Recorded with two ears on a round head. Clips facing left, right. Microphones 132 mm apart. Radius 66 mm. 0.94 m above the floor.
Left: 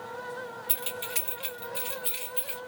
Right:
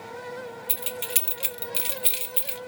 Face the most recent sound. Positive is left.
turn(degrees=-70)  # may be behind; listen again after turning